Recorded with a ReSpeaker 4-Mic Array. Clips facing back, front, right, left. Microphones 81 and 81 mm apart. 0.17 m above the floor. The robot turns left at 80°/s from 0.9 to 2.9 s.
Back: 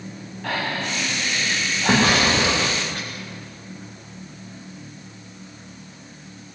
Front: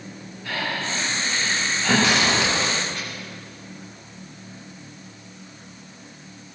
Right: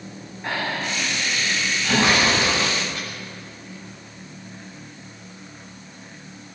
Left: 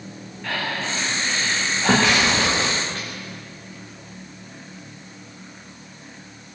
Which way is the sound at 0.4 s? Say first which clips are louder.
Back 2 dB, right 1 dB; 155° right.